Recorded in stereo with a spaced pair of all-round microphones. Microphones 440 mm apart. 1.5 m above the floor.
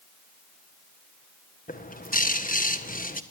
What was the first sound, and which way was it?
A bird, 15° left (ahead or behind).